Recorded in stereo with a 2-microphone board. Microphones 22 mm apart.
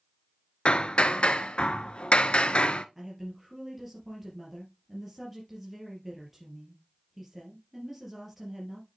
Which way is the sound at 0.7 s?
50° left (ahead or behind).